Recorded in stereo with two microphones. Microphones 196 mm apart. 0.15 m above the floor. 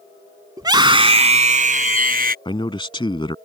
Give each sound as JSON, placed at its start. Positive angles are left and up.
{"t": 0.6, "sound": "a scream", "side_deg": -20}
{"t": 2.5, "sound": "a man speaking", "side_deg": 25}